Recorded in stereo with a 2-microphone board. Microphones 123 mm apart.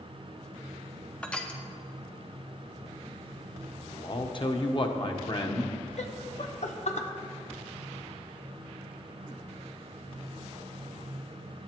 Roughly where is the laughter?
Left.